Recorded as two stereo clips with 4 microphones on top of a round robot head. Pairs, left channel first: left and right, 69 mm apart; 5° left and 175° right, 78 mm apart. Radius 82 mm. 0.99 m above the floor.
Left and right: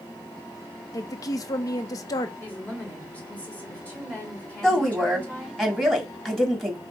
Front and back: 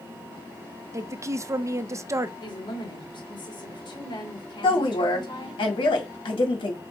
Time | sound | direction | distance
0.9 | a woman speaking | 130° left | 0.5 m
2.4 | a woman speaking | 20° left | 2.5 m
4.6 | a woman speaking | 5° left | 2 m